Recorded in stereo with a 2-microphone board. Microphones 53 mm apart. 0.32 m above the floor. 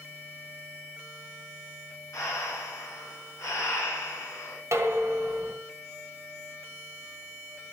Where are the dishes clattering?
65° right (ahead or behind), 1.7 m.